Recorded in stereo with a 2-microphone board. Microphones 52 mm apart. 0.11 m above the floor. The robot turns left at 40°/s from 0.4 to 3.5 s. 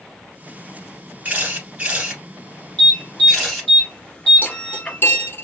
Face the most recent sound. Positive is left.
turn(degrees=40)  # may be behind; listen again after turning